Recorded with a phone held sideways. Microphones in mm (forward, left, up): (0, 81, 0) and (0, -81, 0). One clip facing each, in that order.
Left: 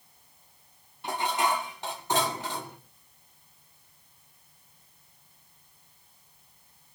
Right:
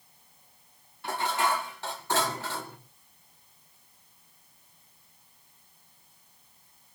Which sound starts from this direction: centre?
Dishes clattering, at 1.0 s.